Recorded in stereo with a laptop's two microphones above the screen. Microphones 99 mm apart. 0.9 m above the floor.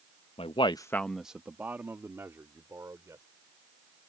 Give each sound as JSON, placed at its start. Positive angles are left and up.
{"t": 0.4, "sound": "a man speaking", "side_deg": 70}